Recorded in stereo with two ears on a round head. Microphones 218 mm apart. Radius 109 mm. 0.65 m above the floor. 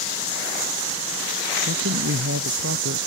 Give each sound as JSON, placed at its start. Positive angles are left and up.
{"t": 1.7, "sound": "a man speaking", "side_deg": -50}